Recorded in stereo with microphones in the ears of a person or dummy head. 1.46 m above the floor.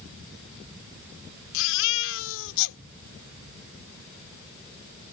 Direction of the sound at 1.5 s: 75° left (ahead or behind).